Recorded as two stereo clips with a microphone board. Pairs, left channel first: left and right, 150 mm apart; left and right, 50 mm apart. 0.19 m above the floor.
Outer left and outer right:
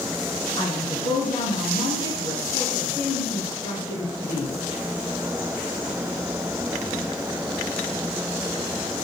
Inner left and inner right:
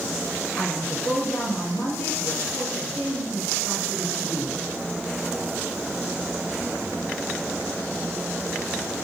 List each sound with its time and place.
0.6 s a woman speaking: 30° left (ahead or behind), 1.7 m